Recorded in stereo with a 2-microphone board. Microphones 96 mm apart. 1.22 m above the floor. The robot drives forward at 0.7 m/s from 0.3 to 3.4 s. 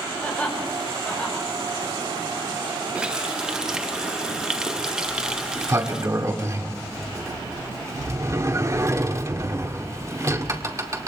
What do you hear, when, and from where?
0.2 s laughter: 15° left (ahead or behind), 5 m; by 1.5 s 10° left (ahead or behind), 6 m
3.0 s a running tap: 10° right (ahead or behind), 0.5 m
5.1 s a sliding door: 35° right (ahead or behind), 2.0 m